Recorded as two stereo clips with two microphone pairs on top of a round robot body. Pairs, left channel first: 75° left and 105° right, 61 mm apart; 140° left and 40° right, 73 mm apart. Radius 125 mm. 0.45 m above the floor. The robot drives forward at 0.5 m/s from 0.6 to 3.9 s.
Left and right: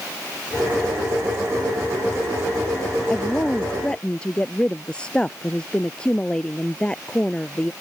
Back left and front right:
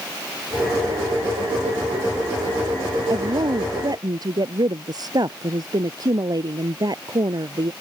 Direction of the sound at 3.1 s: Straight ahead.